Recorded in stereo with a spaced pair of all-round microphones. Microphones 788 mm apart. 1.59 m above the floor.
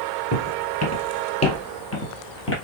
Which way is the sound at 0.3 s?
20° left (ahead or behind).